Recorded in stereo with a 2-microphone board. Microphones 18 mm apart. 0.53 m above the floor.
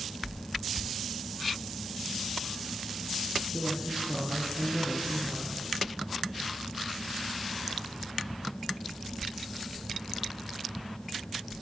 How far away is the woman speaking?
About 8.5 m.